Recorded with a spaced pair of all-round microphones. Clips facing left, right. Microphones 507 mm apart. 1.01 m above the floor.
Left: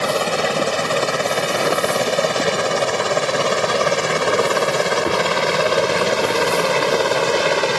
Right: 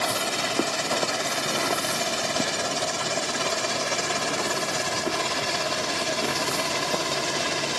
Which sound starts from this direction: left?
A helicopter, at 0.0 s.